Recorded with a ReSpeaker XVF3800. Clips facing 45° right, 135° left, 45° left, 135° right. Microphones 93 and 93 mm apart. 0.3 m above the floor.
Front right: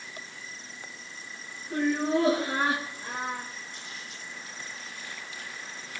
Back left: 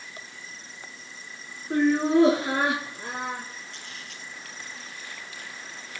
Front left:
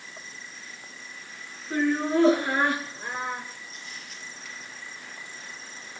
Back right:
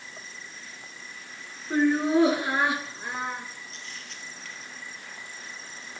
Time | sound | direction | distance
1.7 | laughter | 155° left | 4.5 m
3.7 | a camera shutter | 125° left | 3.5 m